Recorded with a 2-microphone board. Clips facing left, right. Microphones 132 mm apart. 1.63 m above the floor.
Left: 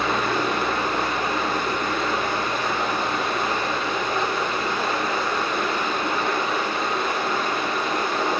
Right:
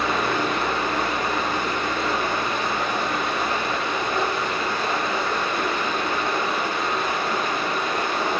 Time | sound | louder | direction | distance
0.0 | running water | even | 60° left (ahead or behind) | 1.9 m